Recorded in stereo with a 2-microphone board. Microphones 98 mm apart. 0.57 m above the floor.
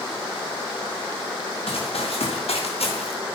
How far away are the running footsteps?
About 5 m.